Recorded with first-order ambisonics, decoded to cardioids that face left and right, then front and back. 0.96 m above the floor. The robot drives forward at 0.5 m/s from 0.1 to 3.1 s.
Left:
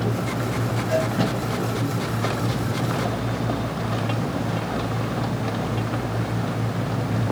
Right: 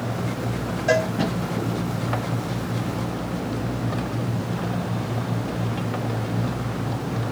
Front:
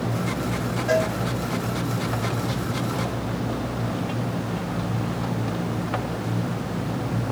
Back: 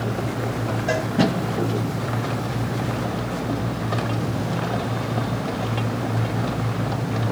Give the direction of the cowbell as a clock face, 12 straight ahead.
3 o'clock.